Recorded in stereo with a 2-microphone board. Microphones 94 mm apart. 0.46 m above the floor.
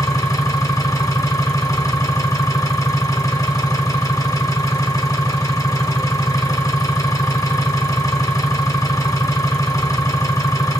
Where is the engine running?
35° left (ahead or behind), 1.2 m.